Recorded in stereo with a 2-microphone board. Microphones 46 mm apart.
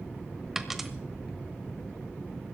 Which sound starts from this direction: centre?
A dropped coin, at 0.6 s.